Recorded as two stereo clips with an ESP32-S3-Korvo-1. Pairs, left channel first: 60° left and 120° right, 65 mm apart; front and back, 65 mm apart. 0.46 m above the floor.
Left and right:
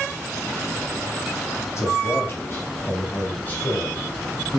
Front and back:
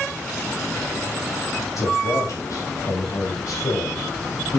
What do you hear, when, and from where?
1.8 s a man speaking: 25° left, 3 m; by 4.6 s 20° right, 2.5 m